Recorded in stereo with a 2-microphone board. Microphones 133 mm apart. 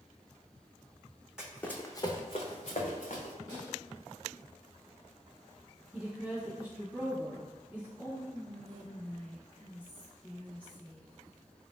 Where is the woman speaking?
10° right (ahead or behind), 1.1 m.